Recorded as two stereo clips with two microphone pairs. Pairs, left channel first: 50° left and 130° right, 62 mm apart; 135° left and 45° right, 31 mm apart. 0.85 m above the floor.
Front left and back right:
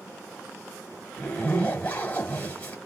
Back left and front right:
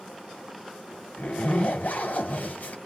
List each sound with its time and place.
1.2 s a zipper: 115° left, 2 m